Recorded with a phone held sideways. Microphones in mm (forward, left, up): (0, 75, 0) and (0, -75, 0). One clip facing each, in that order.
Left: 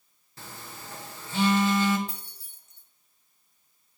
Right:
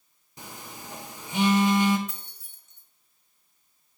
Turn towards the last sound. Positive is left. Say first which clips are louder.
# left 1 dB
turn(degrees=30)  # may be behind; listen again after turning